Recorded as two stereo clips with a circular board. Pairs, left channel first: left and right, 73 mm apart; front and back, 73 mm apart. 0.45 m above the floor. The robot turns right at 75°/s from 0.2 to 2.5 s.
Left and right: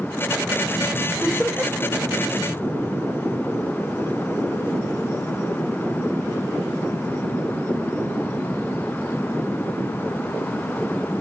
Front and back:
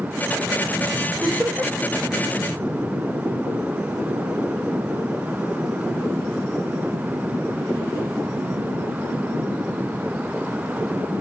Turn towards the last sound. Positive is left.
turn(degrees=-90)